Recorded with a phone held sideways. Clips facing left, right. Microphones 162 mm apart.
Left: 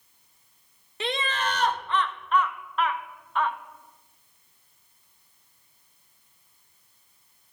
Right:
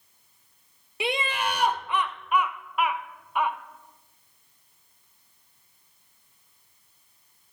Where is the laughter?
10° right (ahead or behind), 0.6 m.